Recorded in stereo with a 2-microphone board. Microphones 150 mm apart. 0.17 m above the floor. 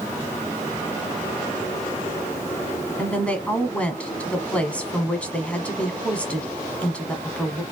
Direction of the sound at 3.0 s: 10° left (ahead or behind).